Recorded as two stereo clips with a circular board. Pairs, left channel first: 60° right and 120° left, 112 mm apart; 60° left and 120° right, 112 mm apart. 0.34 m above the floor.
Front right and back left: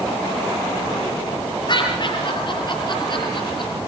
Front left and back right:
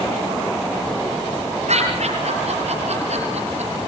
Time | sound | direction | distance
1.7 | laughter | 110° right | 7 m